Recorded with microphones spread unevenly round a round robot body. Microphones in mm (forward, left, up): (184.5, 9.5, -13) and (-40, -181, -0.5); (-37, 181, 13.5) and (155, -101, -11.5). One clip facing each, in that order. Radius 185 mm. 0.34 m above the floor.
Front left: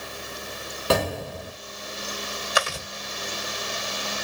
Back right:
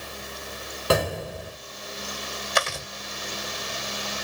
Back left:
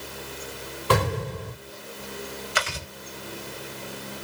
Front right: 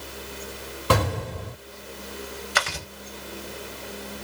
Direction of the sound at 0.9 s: 50° right.